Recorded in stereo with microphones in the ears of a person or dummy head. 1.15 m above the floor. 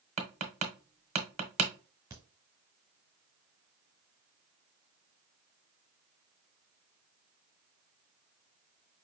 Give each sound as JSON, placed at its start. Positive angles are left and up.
{"t": 0.2, "sound": "tapping", "side_deg": -30, "distance_m": 0.9}
{"t": 2.1, "sound": "a crack", "side_deg": -10, "distance_m": 1.2}